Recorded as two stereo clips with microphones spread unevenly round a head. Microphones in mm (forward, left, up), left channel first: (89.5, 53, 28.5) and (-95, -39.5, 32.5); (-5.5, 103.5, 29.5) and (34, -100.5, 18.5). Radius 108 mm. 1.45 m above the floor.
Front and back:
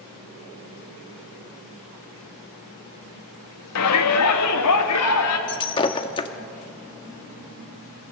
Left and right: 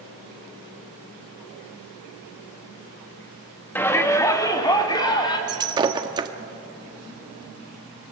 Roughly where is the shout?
Ahead.